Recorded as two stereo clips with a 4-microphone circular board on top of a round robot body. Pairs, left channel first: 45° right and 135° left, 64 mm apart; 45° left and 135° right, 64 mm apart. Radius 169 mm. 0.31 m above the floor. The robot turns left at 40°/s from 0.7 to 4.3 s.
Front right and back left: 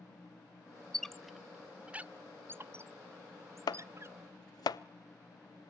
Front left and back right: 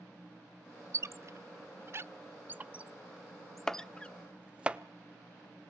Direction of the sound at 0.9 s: 125° right.